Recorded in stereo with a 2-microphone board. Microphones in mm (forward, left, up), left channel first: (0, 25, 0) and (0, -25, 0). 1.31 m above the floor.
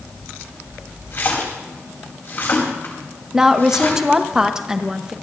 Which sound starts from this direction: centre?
A woman speaking, at 3.3 s.